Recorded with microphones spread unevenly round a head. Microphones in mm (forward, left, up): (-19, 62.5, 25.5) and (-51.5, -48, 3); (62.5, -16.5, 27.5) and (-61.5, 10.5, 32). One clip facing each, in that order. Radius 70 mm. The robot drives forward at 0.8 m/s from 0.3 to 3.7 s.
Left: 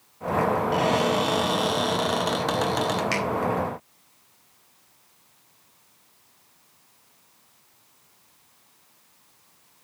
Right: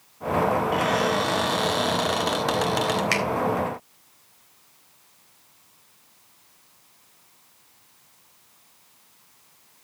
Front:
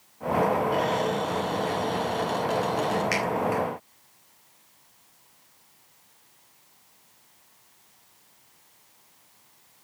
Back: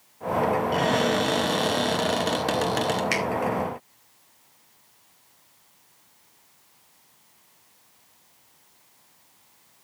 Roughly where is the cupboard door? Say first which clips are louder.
Left 1 dB, back 2 dB; behind left.